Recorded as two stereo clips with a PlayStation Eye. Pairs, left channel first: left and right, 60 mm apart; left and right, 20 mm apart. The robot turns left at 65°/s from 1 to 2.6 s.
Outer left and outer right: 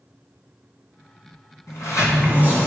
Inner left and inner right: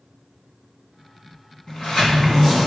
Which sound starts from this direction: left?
A sliding door, at 1.7 s.